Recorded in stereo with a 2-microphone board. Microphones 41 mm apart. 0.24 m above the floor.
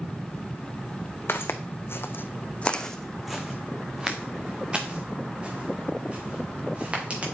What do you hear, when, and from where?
1.3 s footsteps: 70° left (ahead or behind), 1.1 m; by 7.2 s 30° right (ahead or behind), 4 m